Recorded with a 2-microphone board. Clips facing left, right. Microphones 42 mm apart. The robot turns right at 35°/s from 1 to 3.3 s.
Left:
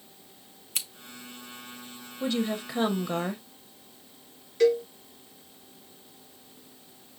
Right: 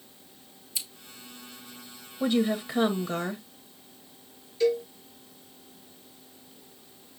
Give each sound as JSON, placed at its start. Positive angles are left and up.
{"t": 0.8, "sound": "scissors", "side_deg": 60, "distance_m": 0.7}
{"t": 2.2, "sound": "a woman speaking", "azimuth_deg": -25, "distance_m": 0.8}
{"t": 4.6, "sound": "a cowbell", "side_deg": 80, "distance_m": 4.0}